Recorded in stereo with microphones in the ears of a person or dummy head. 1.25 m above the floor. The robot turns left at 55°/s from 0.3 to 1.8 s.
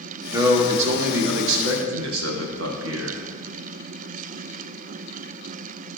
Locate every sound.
0.3 s a man speaking: 15° right, 1.1 m; by 3.2 s 100° right, 1.1 m